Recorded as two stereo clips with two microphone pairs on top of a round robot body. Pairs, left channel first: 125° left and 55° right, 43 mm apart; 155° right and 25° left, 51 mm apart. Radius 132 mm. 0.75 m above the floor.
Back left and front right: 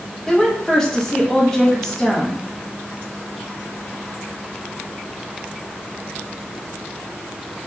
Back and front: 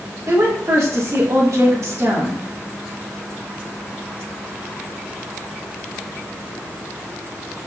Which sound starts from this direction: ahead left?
A woman speaking, at 0.3 s.